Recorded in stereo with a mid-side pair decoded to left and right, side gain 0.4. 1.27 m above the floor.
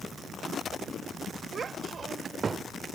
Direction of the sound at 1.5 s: 50° right.